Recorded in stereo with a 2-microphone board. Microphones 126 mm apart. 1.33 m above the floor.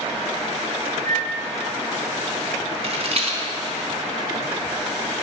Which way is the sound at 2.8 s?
50° right (ahead or behind).